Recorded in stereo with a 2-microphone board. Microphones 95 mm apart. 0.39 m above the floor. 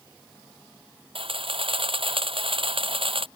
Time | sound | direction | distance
1.1 | a camera shutter | 70° right (ahead or behind) | ?